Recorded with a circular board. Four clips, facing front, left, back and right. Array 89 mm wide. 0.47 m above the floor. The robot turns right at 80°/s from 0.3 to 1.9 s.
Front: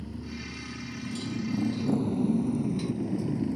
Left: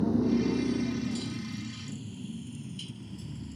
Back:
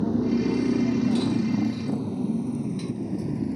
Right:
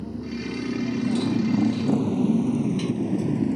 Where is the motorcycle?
155° left; by 3.6 s 95° right.